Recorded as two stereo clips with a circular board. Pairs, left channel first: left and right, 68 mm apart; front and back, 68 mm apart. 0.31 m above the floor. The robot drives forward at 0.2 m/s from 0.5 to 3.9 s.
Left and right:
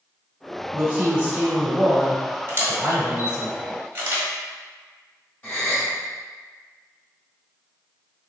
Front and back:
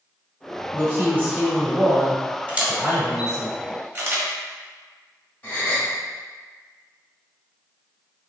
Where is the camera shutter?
120° right, 1.2 m; by 4.3 s 135° right, 1.3 m.